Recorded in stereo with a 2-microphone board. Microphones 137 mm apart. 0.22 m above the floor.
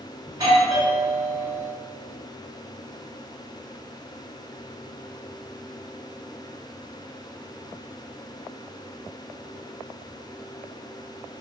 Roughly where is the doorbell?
Right.